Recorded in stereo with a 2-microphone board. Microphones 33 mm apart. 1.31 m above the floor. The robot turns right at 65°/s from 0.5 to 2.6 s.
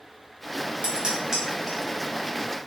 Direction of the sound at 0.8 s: 40° right (ahead or behind).